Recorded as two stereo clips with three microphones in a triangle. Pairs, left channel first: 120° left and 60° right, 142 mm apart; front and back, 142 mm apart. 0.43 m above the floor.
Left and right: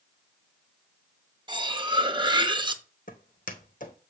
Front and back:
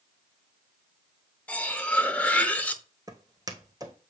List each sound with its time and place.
1.5 s cutlery clinking: 70° right, 0.6 m
3.1 s footsteps: 115° left, 1.2 m